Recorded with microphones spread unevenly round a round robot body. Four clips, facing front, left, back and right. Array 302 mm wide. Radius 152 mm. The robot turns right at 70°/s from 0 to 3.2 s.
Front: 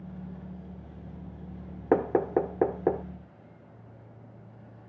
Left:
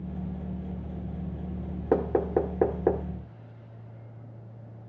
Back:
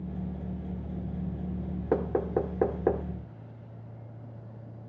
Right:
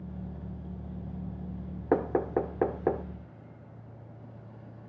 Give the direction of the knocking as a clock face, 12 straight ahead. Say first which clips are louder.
Left 2 dB, front 4 dB; 11 o'clock.